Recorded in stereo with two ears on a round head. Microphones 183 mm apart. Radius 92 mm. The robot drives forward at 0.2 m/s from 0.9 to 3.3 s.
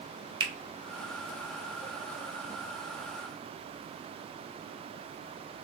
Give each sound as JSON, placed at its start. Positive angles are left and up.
{"t": 0.4, "sound": "a finger snap", "side_deg": -20, "distance_m": 0.5}